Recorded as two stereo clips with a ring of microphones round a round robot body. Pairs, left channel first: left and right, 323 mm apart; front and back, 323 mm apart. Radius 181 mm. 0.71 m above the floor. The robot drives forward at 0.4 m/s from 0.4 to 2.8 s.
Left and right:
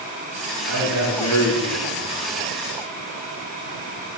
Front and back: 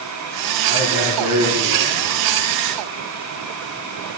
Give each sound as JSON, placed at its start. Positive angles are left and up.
{"t": 0.7, "sound": "a man speaking", "azimuth_deg": 100, "distance_m": 9.0}